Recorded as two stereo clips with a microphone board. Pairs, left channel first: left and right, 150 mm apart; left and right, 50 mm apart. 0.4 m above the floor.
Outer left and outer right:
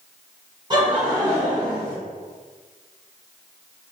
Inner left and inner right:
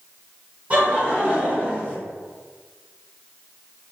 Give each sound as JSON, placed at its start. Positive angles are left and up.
{"t": 0.7, "sound": "laughter", "side_deg": -30, "distance_m": 1.3}